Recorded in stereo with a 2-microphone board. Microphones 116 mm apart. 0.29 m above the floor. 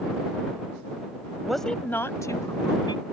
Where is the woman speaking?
5° right (ahead or behind); by 3.0 s 40° left (ahead or behind).